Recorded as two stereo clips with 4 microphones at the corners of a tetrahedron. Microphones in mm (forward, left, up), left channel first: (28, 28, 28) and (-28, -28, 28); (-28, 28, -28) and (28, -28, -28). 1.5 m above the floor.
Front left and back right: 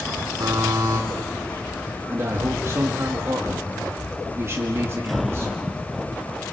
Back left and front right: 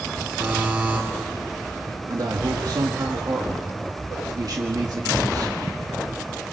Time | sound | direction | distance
0.4 | a buzzer | 115° right | 4 m
2.1 | a man speaking | 80° right | 2.0 m